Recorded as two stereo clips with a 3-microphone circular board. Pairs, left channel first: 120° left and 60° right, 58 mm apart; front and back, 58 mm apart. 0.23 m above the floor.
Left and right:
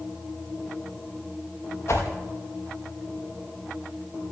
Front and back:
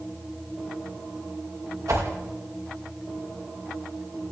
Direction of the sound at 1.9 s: 160° left.